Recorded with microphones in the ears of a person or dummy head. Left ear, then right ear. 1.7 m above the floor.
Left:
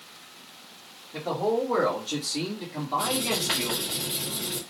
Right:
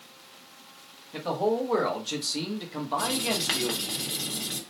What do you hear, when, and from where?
1.1 s a man speaking: 80° right, 1.3 m; by 4.0 s 10° right (ahead or behind), 1.2 m
3.0 s writing: 45° right (ahead or behind), 1.2 m